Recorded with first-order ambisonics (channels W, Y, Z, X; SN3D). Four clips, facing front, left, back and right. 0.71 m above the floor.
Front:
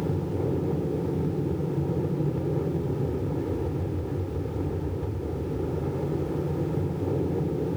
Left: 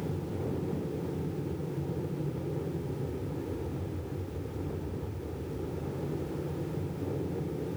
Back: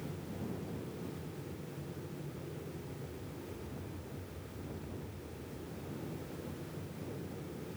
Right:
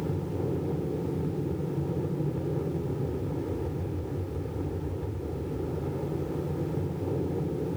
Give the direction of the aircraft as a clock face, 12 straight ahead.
1 o'clock.